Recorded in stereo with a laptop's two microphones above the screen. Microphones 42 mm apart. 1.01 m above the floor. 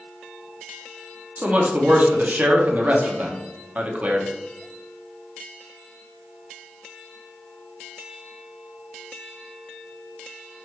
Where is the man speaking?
35° right (ahead or behind), 0.6 m.